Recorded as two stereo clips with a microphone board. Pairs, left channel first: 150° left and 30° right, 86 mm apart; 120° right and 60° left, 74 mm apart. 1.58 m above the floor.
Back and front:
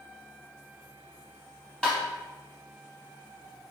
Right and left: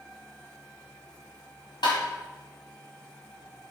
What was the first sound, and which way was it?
Tapping, 130° right.